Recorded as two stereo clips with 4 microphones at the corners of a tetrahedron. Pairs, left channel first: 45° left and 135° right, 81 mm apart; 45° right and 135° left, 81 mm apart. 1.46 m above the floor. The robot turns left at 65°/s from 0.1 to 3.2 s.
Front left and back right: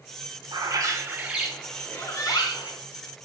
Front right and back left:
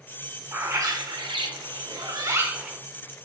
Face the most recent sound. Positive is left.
turn(degrees=25)